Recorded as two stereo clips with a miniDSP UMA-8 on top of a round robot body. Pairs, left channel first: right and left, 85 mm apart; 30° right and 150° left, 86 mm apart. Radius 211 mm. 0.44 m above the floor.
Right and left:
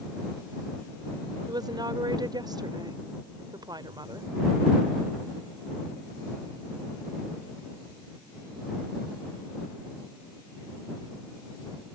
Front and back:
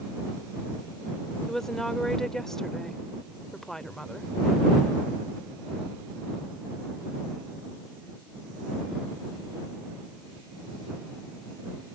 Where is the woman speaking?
55° left.